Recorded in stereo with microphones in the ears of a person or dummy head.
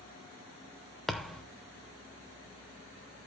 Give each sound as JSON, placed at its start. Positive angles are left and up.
{"t": 1.1, "sound": "a thud", "side_deg": 0, "distance_m": 1.0}